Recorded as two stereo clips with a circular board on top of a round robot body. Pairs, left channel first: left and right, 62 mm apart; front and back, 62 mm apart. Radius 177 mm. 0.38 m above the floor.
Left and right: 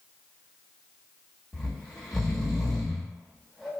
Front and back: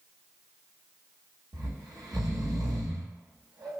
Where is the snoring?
175° left, 1.1 m.